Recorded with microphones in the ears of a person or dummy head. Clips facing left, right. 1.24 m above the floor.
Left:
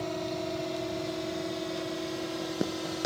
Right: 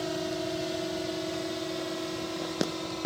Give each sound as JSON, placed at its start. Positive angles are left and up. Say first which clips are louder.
{"t": 0.0, "sound": "a drone", "louder": "right 1 dB", "side_deg": -15}